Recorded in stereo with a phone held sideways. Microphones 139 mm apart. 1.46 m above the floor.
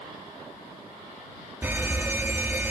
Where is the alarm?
15° right (ahead or behind).